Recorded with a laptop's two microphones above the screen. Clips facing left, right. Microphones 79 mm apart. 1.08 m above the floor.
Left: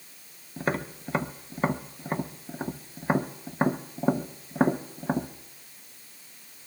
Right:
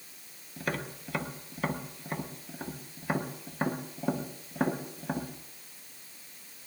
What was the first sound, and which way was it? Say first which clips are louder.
Tapping: left 5 dB; 30° left (ahead or behind).